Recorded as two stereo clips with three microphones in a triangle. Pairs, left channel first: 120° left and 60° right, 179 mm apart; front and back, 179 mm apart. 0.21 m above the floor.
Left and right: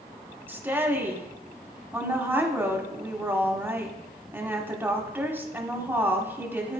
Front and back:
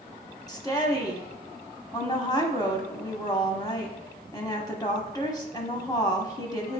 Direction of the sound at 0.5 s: 5° right.